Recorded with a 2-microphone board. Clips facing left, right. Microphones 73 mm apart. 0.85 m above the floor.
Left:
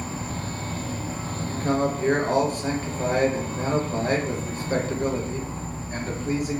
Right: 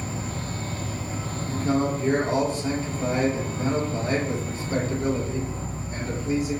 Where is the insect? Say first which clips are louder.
Left 1 dB; 35° left (ahead or behind), 1.2 m.